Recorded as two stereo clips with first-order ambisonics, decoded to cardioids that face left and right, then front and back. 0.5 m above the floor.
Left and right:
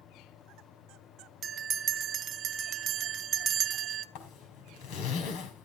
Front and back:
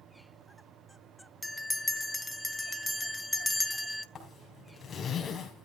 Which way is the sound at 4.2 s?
70° left.